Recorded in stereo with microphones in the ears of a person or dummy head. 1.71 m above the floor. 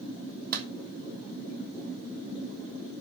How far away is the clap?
About 2.5 m.